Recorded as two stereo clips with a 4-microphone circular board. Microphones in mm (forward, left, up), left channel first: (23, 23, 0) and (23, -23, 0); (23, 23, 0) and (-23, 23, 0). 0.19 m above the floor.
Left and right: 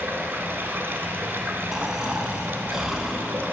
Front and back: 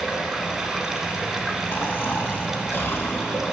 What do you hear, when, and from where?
0.0 s running water: 100° right, 0.8 m
1.7 s snoring: 10° right, 0.6 m